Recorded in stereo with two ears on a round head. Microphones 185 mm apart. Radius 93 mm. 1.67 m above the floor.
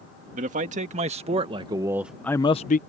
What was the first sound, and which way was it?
A man speaking, 40° right (ahead or behind).